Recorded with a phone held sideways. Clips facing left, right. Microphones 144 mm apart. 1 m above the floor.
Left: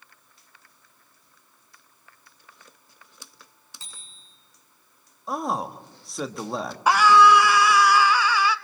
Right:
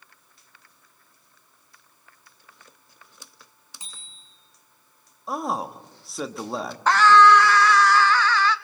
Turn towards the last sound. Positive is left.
turn(degrees=10)  # may be behind; listen again after turning